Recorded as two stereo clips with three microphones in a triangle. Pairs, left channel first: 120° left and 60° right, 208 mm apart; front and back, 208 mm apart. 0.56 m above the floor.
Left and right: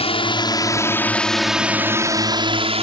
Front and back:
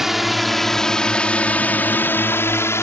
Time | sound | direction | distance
0.0 | a drone | 95° left | ?